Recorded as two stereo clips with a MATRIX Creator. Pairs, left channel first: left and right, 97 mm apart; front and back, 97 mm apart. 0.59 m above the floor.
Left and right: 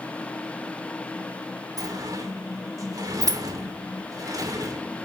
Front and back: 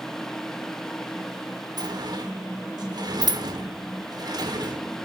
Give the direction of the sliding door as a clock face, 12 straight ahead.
5 o'clock.